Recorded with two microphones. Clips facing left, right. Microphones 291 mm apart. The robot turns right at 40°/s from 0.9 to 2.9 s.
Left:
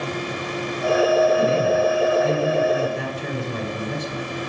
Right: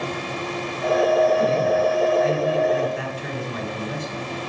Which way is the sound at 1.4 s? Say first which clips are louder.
Left 1 dB; 50° left.